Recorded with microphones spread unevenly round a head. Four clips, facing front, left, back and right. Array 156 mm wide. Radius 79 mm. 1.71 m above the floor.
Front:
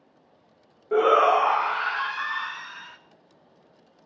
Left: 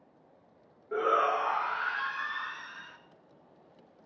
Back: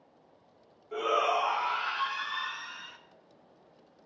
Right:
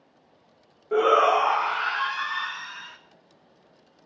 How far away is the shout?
About 0.7 m.